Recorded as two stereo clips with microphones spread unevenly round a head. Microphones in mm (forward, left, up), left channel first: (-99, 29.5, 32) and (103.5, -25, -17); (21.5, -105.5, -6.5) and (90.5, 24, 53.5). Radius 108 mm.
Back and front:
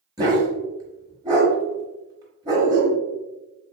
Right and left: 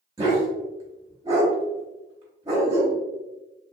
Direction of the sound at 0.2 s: 65° left.